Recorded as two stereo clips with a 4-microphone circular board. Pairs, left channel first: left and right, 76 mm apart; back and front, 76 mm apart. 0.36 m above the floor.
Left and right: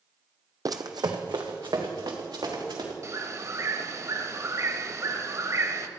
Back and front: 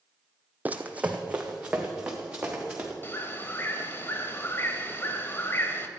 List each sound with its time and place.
0.7 s running footsteps: 65° right, 0.7 m; by 2.9 s 75° right, 3 m
3.0 s a bird: 125° right, 0.9 m